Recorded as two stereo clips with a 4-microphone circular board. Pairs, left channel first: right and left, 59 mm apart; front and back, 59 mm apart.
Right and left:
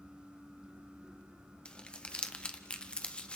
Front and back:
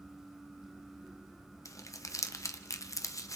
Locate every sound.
1.6 s crumpling: 20° right, 1.0 m